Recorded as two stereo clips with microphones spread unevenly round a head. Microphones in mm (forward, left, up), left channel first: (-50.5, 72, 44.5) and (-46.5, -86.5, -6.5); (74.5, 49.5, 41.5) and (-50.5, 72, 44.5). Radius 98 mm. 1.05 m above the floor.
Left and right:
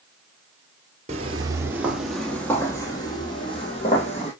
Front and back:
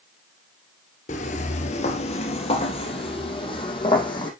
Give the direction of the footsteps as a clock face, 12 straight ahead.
1 o'clock.